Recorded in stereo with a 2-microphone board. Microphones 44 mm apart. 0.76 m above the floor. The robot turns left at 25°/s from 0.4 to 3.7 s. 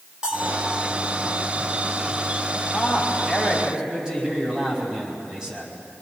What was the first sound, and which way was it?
A bell, 15° right (ahead or behind).